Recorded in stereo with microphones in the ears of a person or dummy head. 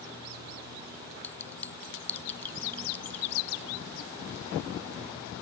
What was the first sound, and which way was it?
A clink, 10° left (ahead or behind).